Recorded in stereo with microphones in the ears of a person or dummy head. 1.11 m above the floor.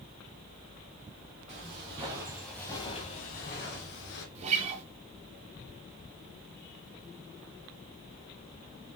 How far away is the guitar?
About 0.8 m.